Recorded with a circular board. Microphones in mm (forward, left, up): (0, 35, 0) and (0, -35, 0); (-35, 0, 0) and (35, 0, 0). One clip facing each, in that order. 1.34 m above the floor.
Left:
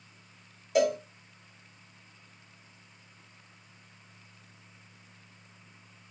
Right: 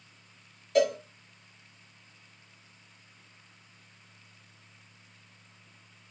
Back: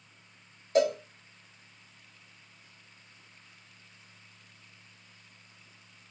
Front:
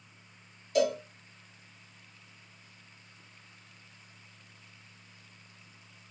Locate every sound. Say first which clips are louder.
0.8 s a cowbell: right 1 dB, back 2 dB; 165° left, 1.3 m